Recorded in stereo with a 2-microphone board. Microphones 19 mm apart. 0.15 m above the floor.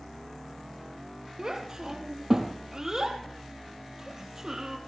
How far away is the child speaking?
About 3.5 m.